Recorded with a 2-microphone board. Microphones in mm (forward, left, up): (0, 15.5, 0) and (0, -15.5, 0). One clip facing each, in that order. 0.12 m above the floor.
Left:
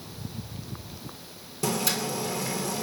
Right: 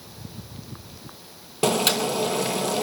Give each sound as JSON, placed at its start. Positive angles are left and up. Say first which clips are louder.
{"t": 1.6, "sound": "boiling", "louder": "right 7 dB", "side_deg": -65, "distance_m": 0.7}